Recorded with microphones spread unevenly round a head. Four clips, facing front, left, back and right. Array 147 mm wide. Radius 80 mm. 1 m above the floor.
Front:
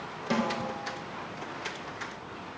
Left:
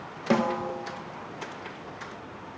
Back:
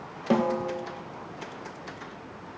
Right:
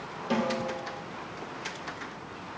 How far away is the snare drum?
About 1.1 m.